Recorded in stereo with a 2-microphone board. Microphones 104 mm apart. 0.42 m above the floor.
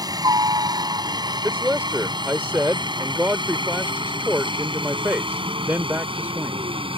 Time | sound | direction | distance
0.0 | a helicopter | 40° right (ahead or behind) | ?
1.4 | a man speaking | 20° right (ahead or behind) | ?